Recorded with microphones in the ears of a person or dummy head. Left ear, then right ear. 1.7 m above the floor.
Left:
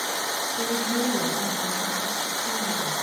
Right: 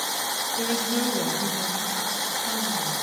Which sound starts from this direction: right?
A woman speaking, at 0.6 s.